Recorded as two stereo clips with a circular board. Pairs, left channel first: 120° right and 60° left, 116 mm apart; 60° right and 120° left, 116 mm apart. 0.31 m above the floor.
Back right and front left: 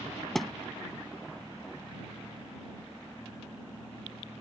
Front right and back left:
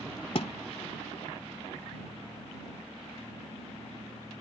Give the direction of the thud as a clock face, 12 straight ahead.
1 o'clock.